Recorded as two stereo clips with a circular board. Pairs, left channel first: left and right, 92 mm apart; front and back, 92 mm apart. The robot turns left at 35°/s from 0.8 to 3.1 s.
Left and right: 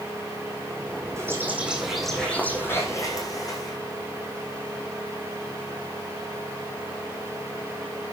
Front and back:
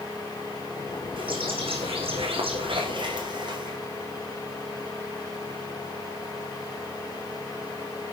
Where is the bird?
150° right, 8 m; by 3.8 s 140° left, 8 m.